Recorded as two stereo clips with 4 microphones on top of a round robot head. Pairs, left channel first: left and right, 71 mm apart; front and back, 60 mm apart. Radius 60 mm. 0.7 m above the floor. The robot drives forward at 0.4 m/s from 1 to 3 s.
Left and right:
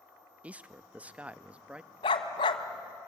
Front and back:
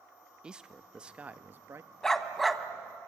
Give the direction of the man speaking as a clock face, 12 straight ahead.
4 o'clock.